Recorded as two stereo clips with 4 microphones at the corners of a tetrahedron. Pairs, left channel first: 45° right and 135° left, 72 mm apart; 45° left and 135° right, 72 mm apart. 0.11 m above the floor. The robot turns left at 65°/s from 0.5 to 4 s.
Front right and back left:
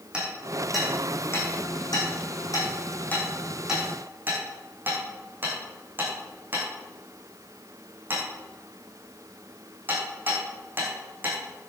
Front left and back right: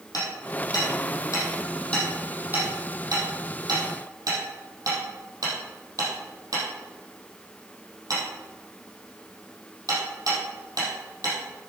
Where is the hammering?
65° left, 4.5 m; by 11.7 s 165° right, 4.5 m.